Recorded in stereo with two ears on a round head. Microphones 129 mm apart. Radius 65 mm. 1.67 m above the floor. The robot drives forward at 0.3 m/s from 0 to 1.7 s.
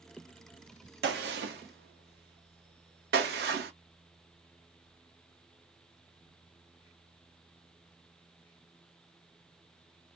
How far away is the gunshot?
About 1.0 m.